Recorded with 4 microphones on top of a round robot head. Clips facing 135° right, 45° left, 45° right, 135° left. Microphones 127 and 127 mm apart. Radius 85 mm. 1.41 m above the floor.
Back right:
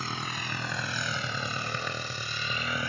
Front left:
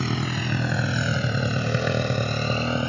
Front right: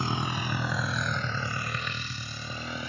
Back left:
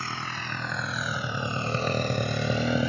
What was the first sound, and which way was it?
A motorcycle, 25° left.